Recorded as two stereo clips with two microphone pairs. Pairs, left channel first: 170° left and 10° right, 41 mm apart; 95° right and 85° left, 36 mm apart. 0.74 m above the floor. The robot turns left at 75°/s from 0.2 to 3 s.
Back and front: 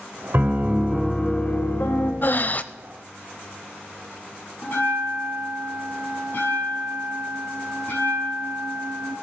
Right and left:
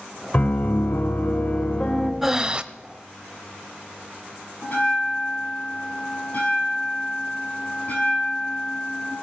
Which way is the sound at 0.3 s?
40° right.